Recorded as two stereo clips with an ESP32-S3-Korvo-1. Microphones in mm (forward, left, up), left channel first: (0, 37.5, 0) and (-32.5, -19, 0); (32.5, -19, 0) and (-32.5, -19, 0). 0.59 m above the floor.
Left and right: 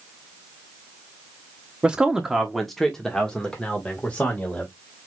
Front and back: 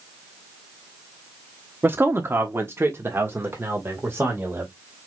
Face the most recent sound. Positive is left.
turn(degrees=130)